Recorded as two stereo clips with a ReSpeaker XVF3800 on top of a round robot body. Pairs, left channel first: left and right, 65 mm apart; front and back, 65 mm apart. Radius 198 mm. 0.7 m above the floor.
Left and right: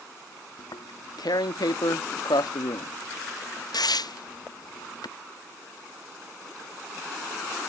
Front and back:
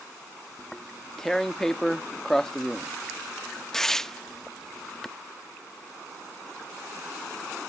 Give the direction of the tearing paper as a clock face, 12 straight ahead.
9 o'clock.